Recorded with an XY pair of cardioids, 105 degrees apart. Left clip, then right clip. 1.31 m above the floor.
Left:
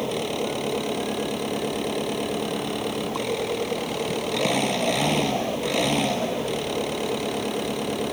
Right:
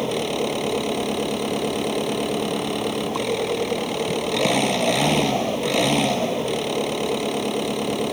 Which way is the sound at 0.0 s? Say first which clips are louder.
Right 3 dB; 25° right.